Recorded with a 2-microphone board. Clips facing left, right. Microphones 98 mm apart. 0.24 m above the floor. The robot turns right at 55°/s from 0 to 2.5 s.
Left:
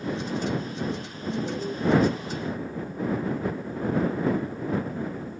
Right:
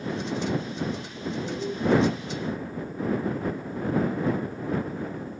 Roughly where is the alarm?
Centre.